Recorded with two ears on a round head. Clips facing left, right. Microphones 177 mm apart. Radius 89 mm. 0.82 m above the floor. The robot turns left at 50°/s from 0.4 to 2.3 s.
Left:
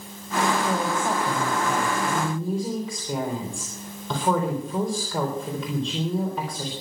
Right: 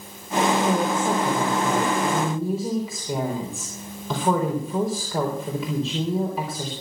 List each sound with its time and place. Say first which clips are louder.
0.6 s a woman speaking: right 3 dB; 95° right, 3.5 m; by 6.7 s 175° right, 3.5 m